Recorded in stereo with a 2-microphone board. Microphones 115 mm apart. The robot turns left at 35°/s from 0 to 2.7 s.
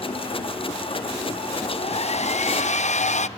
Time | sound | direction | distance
1.6 | a hair dryer | 130° left | 0.6 m